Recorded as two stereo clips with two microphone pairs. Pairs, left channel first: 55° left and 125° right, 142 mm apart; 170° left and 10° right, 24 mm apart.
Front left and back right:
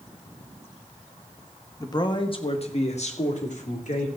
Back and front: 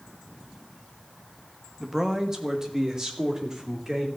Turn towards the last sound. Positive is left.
turn(degrees=55)